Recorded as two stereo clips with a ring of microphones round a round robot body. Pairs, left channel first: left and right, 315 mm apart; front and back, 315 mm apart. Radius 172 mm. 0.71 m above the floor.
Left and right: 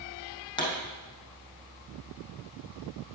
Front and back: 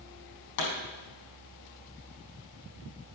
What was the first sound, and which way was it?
A pop, 15° left.